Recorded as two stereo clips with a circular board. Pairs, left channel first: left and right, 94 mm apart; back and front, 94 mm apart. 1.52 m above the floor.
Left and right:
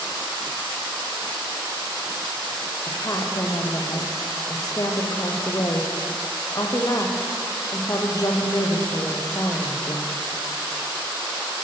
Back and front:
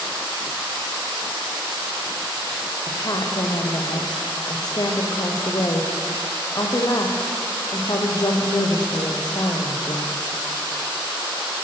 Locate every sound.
2.9 s a woman speaking: 140° left, 0.6 m